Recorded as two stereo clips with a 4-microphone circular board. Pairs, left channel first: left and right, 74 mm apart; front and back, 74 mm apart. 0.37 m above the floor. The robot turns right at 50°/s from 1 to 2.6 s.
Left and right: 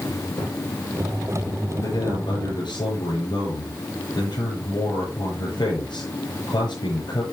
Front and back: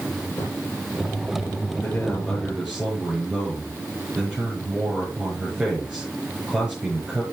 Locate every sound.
0.4 s a thud: 50° left, 8.5 m
1.8 s a man speaking: 60° left, 9.5 m; by 7.2 s 100° left, 9.5 m